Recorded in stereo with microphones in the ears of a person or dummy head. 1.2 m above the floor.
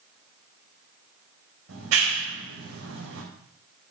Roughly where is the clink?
I don't hear a clink.